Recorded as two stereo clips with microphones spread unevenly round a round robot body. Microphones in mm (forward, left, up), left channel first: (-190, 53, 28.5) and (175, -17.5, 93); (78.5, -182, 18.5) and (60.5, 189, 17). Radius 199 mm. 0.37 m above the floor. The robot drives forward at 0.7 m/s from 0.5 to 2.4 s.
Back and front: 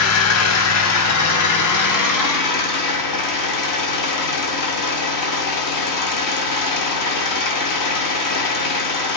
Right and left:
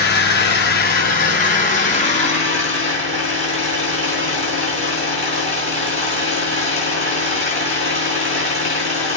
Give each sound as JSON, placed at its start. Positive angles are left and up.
{"t": 0.0, "sound": "an engine running", "azimuth_deg": -150, "distance_m": 3.0}